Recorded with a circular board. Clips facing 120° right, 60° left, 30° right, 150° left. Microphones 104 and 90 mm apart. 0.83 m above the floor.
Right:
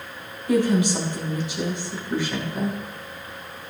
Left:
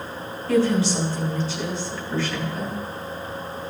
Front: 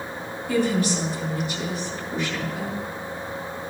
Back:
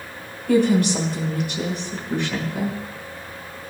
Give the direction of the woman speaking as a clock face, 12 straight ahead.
6 o'clock.